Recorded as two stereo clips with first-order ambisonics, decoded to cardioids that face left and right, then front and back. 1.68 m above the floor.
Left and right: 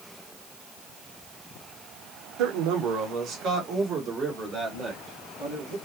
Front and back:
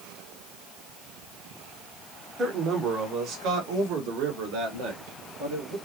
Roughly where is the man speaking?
Behind right.